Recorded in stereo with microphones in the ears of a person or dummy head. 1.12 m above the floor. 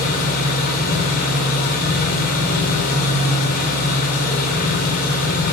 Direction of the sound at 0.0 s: 55° left (ahead or behind).